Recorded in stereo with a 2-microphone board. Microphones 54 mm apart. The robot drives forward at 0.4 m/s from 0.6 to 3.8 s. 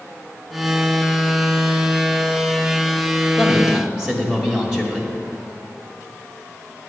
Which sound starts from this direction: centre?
A man speaking, at 3.4 s.